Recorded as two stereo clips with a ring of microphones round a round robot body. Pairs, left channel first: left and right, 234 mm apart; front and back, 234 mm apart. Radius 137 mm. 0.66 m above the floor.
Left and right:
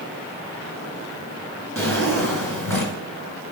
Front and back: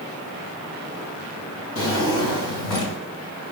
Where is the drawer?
10° left, 3 m.